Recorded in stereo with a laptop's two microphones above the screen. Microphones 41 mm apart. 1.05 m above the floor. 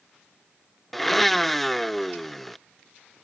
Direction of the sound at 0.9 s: 5° left (ahead or behind).